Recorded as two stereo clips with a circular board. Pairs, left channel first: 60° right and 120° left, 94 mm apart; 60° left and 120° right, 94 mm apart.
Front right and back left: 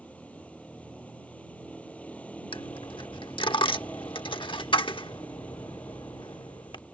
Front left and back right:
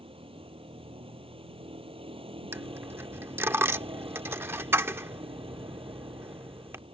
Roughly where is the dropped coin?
Ahead right.